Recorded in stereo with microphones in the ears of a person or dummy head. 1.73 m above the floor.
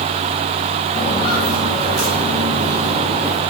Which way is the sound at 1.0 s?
35° left (ahead or behind).